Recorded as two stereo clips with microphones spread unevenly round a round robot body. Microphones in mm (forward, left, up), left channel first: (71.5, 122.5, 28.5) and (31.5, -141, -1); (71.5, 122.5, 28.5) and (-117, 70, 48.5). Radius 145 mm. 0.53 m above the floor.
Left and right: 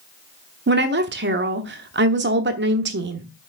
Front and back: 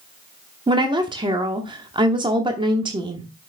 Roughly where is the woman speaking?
Right.